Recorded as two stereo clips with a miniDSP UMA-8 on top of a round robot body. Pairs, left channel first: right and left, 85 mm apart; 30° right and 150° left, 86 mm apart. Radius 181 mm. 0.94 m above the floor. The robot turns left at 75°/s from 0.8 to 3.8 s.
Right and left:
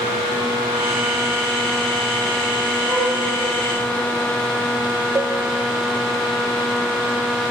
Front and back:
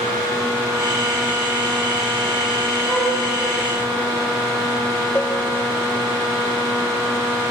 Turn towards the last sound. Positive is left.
turn(degrees=35)